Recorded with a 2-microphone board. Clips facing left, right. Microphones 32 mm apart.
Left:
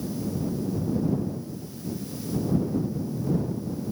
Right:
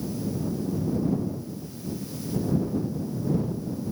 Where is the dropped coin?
I don't hear a dropped coin.